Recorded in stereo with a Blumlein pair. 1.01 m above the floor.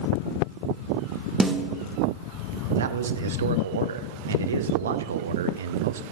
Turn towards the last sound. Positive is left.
turn(degrees=-65)